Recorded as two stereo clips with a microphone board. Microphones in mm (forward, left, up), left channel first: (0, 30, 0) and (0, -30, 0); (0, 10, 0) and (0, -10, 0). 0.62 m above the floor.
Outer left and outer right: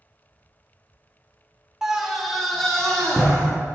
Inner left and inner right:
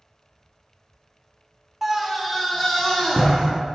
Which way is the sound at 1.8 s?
10° right (ahead or behind).